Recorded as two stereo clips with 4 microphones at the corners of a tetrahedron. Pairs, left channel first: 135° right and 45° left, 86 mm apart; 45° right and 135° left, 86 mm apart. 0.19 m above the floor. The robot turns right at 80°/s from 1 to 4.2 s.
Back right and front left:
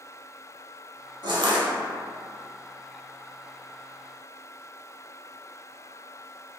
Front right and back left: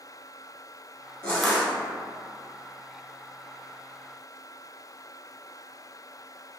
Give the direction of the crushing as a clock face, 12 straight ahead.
11 o'clock.